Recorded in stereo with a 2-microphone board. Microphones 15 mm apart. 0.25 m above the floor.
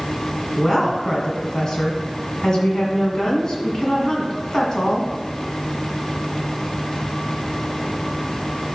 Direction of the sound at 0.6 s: 40° left (ahead or behind).